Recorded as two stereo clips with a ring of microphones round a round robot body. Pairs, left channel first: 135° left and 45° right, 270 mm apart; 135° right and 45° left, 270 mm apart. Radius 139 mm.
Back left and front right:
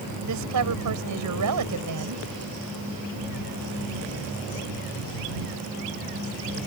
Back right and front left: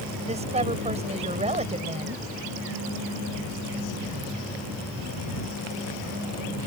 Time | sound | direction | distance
0.3 | a woman speaking | 20° right | ?